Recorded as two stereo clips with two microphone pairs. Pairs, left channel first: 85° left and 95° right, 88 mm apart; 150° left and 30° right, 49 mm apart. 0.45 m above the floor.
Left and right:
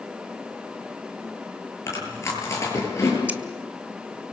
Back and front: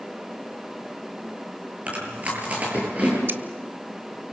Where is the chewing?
30° left, 9 m.